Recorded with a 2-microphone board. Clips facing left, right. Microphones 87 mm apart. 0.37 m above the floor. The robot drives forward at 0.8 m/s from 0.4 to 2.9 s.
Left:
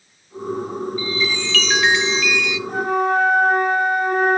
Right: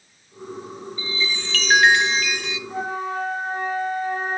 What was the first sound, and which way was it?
A chime, 25° right (ahead or behind).